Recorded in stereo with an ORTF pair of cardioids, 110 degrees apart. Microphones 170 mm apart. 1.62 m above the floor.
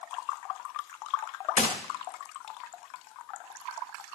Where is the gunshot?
50° left, 1.2 m.